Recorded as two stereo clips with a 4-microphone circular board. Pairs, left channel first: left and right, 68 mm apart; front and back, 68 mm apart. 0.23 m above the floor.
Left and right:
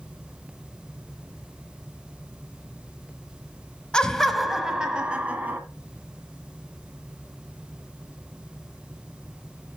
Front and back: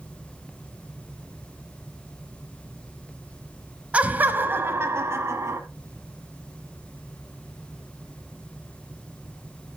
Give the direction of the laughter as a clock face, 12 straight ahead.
7 o'clock.